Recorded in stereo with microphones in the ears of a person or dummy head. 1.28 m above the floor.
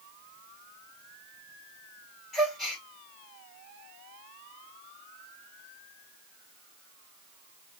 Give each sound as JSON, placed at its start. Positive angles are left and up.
{"t": 2.3, "sound": "a gasp", "side_deg": 0, "distance_m": 2.0}